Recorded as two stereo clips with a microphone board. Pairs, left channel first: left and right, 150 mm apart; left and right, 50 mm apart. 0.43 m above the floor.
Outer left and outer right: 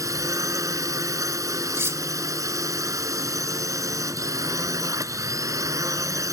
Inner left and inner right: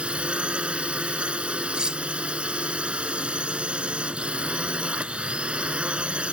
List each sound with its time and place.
0.0 s a drone: 20° right (ahead or behind)
1.7 s cutlery clinking: 15° right (ahead or behind)